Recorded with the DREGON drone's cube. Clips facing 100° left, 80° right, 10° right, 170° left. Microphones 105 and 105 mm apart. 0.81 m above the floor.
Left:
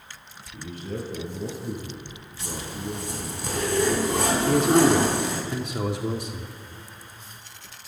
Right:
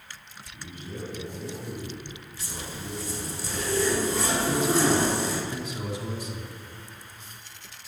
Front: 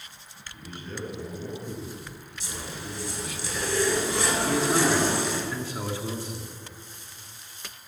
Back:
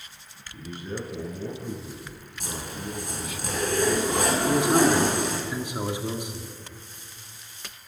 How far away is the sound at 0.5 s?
About 9 m.